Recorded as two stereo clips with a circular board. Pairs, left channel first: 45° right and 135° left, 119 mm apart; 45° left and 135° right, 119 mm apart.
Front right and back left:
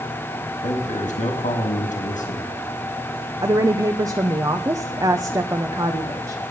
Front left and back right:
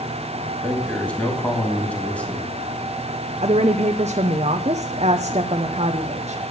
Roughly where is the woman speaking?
Behind.